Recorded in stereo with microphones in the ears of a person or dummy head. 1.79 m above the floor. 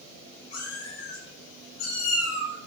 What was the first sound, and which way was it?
A cat meowing, 60° left (ahead or behind).